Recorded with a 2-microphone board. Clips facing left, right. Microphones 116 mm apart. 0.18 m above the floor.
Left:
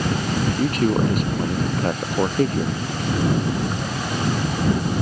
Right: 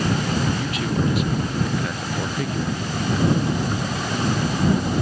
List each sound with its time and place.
0.6 s a man speaking: 40° left (ahead or behind); by 2.8 s 35° left (ahead or behind)